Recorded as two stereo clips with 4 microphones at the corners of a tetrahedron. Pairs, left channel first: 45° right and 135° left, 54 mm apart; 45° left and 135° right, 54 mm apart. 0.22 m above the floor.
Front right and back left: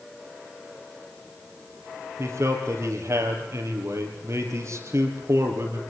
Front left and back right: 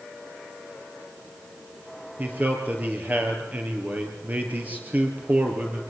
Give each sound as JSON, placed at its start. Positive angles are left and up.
{"t": 2.2, "sound": "a man speaking", "azimuth_deg": 165, "distance_m": 5.0}